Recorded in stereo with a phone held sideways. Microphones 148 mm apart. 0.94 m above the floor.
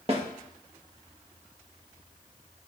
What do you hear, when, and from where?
0.1 s a snare drum: 40° right (ahead or behind), 1.3 m